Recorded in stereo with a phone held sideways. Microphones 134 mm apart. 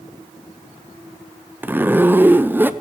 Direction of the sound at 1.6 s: 15° right (ahead or behind).